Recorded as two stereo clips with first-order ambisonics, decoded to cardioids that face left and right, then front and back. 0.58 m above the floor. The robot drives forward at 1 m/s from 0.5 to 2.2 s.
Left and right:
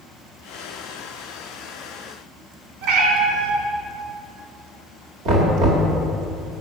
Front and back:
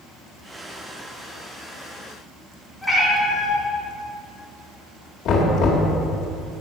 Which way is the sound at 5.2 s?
50° right.